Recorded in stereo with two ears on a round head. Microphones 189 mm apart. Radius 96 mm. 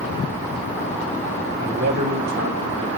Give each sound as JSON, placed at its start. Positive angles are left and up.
{"t": 1.6, "sound": "a man speaking", "side_deg": -45, "distance_m": 0.8}